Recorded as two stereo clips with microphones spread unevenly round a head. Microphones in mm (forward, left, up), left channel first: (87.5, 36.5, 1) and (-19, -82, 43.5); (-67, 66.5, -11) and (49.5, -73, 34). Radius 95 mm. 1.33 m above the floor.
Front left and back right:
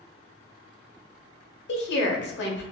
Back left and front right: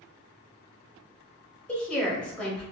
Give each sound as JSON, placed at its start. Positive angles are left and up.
{"t": 1.7, "sound": "a woman speaking", "azimuth_deg": 45, "distance_m": 0.9}